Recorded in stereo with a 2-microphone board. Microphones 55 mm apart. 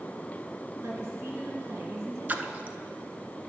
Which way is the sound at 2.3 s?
35° right (ahead or behind).